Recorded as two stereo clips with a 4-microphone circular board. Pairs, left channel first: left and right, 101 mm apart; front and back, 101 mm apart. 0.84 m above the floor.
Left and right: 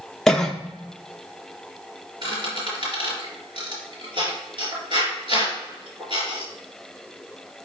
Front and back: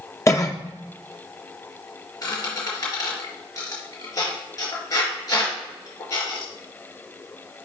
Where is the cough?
10° left, 0.6 m.